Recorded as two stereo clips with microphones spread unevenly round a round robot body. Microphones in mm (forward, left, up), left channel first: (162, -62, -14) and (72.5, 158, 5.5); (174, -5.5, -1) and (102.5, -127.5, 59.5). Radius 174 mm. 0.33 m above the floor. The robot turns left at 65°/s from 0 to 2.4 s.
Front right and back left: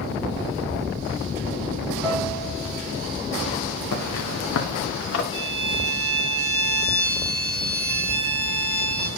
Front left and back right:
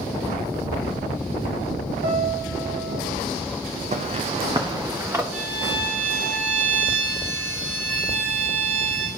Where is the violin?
85° left, 1.3 m.